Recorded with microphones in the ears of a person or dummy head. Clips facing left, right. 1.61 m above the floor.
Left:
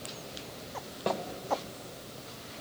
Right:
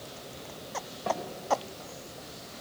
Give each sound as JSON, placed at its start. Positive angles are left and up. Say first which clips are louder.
{"t": 1.1, "sound": "a snare drum", "louder": "even", "side_deg": 45, "distance_m": 2.5}